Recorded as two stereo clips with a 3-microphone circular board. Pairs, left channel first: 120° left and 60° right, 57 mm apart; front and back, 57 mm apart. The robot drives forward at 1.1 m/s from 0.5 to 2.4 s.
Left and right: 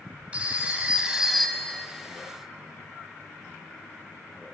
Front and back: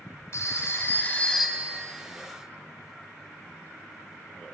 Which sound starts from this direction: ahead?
A phone ringing, at 0.3 s.